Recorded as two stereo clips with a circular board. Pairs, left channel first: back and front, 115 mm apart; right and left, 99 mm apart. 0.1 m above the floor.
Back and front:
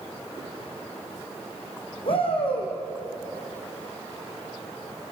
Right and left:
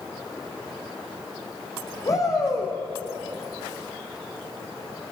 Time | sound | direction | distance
2.0 | a shout | 145° right | 5.5 m